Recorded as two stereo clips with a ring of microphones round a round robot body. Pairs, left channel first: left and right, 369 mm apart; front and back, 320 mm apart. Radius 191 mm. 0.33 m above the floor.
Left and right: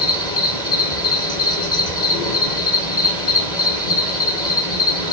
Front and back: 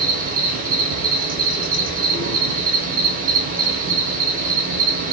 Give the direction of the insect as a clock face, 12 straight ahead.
7 o'clock.